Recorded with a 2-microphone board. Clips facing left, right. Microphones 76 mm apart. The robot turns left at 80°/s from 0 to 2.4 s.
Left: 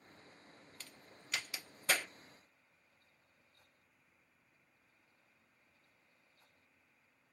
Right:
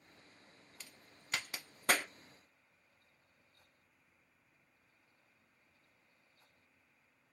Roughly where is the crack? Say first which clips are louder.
Even; centre.